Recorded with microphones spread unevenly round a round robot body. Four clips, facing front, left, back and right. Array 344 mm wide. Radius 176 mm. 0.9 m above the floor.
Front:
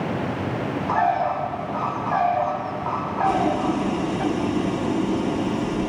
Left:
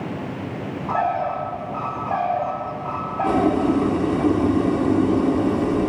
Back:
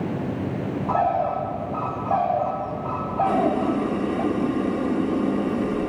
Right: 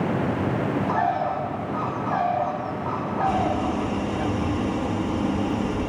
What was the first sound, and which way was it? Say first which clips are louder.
A bird: left 5 dB, front 1 dB; 170° left.